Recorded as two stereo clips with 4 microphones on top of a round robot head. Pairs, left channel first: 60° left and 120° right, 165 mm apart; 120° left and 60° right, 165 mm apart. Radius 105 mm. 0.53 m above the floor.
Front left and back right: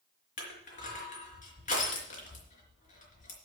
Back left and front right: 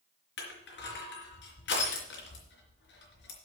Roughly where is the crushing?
Left.